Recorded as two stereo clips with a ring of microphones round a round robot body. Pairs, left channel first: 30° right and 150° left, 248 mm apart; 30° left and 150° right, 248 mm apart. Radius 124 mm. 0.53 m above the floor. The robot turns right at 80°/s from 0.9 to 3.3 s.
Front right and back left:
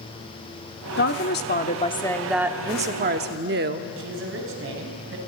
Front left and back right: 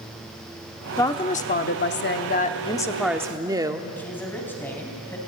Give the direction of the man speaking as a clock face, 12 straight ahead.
8 o'clock.